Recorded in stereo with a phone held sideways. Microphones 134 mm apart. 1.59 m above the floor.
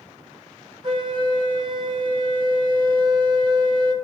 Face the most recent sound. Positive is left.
turn(degrees=-40)  # may be behind; listen again after turning